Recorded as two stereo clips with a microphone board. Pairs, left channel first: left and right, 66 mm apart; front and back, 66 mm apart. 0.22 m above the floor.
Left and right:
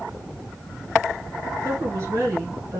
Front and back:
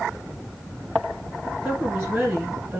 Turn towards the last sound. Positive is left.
turn(degrees=-115)